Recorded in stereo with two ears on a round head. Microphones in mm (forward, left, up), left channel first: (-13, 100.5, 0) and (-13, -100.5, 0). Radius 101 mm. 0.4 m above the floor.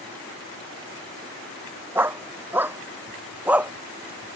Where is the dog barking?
10° right (ahead or behind); by 3.7 s 5° right (ahead or behind).